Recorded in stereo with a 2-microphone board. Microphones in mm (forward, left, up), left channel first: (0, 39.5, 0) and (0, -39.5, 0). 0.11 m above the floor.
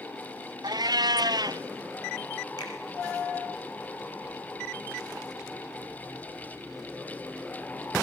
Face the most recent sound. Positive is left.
turn(degrees=60)  # may be behind; listen again after turning